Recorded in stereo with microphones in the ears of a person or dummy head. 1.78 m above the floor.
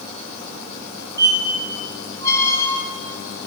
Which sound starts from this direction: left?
A squeak, at 1.2 s.